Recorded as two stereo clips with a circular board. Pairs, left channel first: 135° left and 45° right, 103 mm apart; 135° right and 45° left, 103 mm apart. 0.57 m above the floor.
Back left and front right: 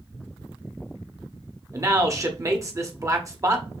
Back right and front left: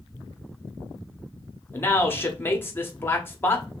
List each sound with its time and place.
1.7 s a man speaking: 80° right, 0.8 m